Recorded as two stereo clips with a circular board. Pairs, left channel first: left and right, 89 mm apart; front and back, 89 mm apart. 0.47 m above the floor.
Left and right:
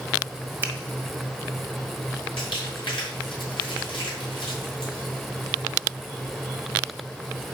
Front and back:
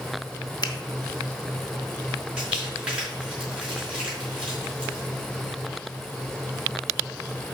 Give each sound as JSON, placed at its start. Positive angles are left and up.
{"t": 0.6, "sound": "a finger snap", "azimuth_deg": -25, "distance_m": 1.2}
{"t": 2.4, "sound": "crumpling", "azimuth_deg": 100, "distance_m": 5.5}